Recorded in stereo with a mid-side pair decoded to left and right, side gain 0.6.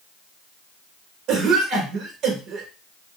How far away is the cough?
About 1.0 m.